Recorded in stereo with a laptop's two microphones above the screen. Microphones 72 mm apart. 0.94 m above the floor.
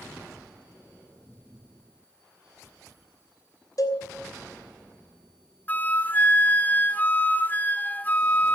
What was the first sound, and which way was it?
A cowbell, 55° left (ahead or behind).